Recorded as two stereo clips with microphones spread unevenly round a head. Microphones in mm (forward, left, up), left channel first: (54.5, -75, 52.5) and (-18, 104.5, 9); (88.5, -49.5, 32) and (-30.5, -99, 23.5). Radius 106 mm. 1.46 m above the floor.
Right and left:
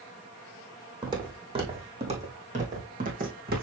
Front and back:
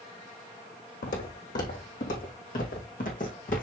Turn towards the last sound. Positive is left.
turn(degrees=65)